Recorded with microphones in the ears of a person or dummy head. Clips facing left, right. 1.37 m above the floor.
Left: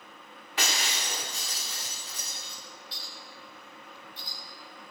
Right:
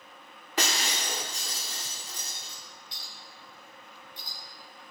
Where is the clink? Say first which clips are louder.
Left 3 dB; 20° right (ahead or behind), 2.5 m.